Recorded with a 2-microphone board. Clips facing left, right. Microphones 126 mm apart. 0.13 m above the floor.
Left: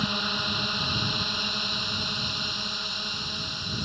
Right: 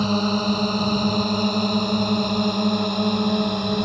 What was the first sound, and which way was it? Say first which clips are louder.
A drone: right 11 dB; 40° right (ahead or behind).